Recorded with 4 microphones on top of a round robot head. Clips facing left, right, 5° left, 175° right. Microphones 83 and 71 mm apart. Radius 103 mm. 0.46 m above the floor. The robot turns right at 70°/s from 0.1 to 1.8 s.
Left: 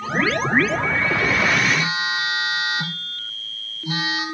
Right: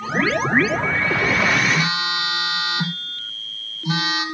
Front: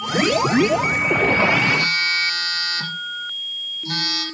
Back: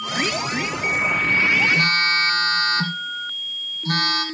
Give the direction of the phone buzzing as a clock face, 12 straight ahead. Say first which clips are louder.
Right 1 dB, back 2 dB; 4 o'clock.